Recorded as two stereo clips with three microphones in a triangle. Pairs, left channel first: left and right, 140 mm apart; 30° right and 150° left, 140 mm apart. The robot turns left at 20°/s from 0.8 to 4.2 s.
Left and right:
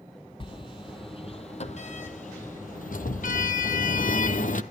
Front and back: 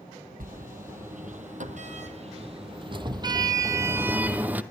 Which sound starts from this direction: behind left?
A sliding door, at 0.4 s.